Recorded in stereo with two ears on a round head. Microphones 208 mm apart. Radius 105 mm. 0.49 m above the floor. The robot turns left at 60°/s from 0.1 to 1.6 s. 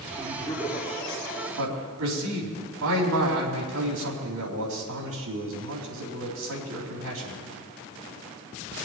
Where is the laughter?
35° right, 4.5 m; by 1.5 s 110° right, 4.5 m.